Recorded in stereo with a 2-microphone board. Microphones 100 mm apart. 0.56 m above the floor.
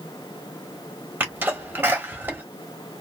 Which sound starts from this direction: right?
A sneeze, at 1.2 s.